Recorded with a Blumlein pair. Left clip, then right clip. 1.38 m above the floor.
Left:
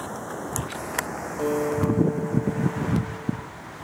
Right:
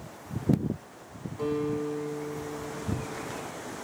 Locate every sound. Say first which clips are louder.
1.4 s a guitar: left 5 dB; 25° left, 0.9 m